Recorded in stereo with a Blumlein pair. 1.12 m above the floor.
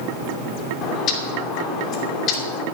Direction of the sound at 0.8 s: 35° left.